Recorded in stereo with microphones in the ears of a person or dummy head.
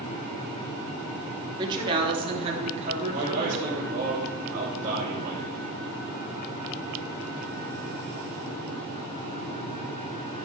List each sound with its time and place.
1.6 s a woman speaking: 25° right (ahead or behind), 3 m; by 4.0 s 45° right (ahead or behind), 4 m
3.0 s a man speaking: 40° right (ahead or behind), 3 m